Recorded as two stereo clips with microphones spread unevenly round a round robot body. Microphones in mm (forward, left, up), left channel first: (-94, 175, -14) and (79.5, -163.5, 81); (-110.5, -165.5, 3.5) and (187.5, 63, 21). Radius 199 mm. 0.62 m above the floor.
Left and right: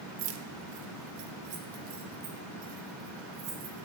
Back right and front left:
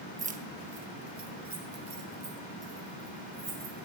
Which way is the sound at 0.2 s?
35° right.